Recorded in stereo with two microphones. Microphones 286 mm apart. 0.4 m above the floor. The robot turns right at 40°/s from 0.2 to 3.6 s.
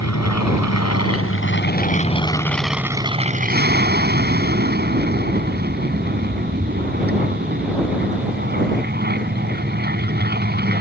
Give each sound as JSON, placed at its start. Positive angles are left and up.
{"t": 0.0, "sound": "an aircraft", "azimuth_deg": 80}